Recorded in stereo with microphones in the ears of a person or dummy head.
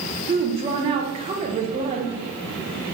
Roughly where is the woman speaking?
Right.